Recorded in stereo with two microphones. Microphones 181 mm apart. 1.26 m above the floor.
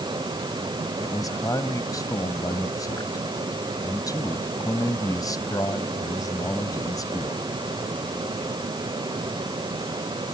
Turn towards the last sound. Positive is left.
turn(degrees=20)  # may be behind; listen again after turning